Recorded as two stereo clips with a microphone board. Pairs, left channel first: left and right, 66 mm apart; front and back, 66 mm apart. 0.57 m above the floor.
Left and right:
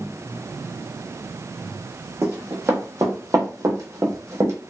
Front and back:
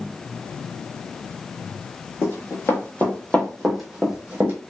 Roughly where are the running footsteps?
Ahead right.